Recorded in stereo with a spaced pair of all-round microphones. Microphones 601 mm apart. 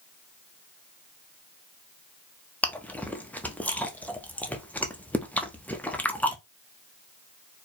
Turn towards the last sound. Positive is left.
turn(degrees=5)  # may be behind; listen again after turning